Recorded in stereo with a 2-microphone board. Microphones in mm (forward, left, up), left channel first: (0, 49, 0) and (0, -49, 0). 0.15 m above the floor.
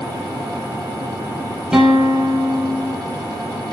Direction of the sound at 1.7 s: 5° right (ahead or behind).